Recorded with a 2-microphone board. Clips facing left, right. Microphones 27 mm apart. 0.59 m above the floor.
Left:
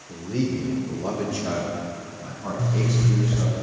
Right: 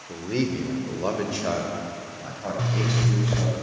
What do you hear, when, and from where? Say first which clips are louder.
0.1 s a man speaking: even; 65° right (ahead or behind), 1.4 m; by 3.6 s 35° right (ahead or behind), 3.5 m
2.6 s a zipper: left 1 dB; 55° right (ahead or behind), 0.5 m